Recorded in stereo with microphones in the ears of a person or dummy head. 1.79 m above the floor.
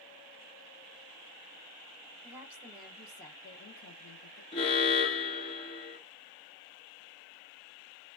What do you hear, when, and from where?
2.2 s a woman speaking: 20° right (ahead or behind), 0.9 m; by 4.4 s 50° left (ahead or behind), 1.0 m
4.5 s an alarm: 35° left (ahead or behind), 0.6 m